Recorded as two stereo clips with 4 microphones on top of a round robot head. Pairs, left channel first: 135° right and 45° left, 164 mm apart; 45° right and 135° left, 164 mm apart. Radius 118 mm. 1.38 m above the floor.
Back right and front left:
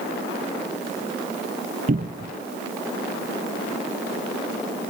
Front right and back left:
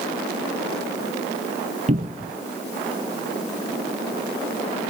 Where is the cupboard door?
85° left, 0.8 m.